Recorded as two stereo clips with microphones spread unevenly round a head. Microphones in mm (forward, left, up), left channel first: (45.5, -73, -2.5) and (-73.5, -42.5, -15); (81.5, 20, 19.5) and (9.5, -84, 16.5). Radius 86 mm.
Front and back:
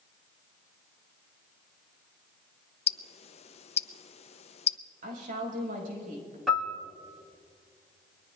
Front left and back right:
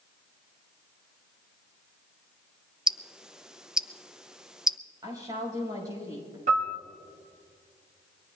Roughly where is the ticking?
Ahead right.